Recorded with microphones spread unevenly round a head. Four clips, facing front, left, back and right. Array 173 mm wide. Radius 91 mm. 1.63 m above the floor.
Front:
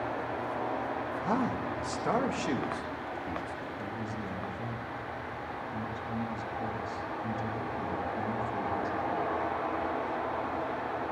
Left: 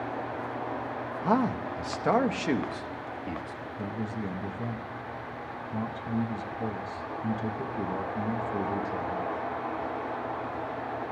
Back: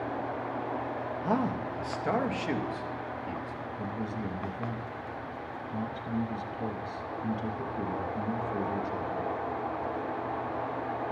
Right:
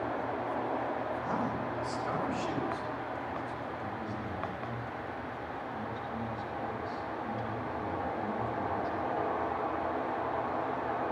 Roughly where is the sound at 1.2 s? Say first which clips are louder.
Left 6 dB, back 2 dB; left.